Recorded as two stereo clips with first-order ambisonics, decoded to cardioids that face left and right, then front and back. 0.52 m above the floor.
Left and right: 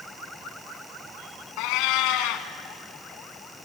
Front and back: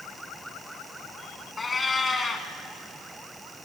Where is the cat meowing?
75° left, 1.5 m.